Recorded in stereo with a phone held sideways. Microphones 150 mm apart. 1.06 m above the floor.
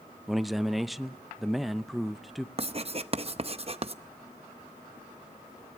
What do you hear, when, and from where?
0.3 s a man speaking: centre (ahead or behind), 0.7 m
2.6 s writing: 40° right (ahead or behind), 0.7 m